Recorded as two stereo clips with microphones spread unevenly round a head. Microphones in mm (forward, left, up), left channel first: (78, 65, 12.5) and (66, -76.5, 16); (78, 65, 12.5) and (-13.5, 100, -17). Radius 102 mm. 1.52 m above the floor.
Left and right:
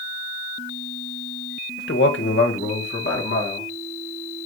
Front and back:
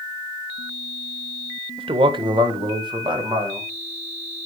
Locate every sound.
1.8 s a man speaking: 120° left, 1.1 m; by 3.7 s 115° left, 2.5 m